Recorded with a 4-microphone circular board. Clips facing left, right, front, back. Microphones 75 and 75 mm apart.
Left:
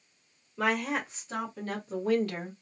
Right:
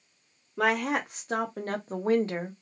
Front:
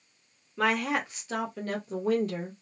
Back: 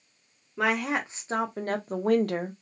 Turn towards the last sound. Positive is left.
turn(degrees=-165)